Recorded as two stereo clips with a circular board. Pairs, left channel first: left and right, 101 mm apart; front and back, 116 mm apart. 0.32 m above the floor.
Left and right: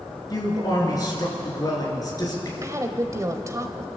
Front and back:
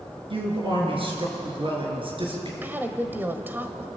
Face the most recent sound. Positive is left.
turn(degrees=-120)